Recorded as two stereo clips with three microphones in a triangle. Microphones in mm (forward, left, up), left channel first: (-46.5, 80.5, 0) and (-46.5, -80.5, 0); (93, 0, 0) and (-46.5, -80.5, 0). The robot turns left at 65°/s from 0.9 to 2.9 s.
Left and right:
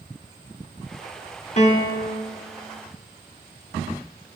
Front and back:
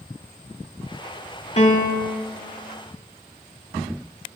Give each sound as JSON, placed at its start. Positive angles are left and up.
{"t": 1.6, "sound": "a piano", "azimuth_deg": 65, "distance_m": 1.6}